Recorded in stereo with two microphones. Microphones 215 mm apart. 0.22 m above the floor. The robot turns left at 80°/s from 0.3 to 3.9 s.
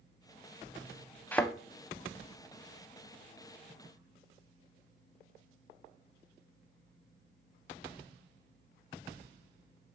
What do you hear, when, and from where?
1.3 s a thud: 10° left (ahead or behind), 0.5 m; by 1.5 s centre (ahead or behind), 0.5 m